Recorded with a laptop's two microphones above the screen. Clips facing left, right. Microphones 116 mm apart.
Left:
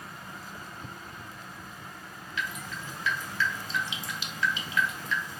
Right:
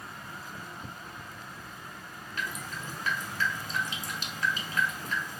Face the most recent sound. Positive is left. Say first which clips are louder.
# left 1 dB
turn(degrees=-40)  # may be behind; listen again after turning